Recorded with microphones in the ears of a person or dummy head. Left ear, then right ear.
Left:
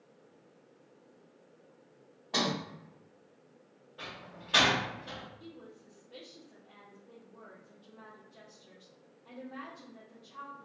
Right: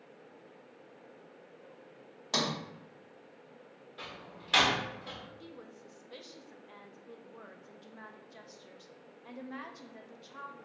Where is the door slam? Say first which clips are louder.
Left 1 dB; 35° right (ahead or behind), 1.1 m.